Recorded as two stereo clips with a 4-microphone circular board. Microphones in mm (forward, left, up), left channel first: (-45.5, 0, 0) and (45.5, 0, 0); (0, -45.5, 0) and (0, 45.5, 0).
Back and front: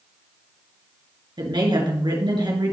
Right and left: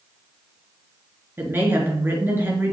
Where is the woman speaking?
25° left, 3.5 m.